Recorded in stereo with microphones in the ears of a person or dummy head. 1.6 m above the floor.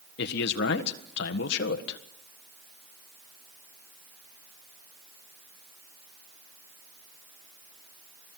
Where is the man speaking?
65° left (ahead or behind), 1.6 m.